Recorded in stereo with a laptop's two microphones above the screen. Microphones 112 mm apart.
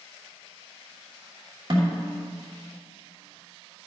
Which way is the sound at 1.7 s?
50° right (ahead or behind).